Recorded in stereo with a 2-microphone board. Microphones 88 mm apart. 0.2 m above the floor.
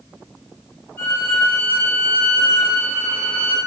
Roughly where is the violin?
Left.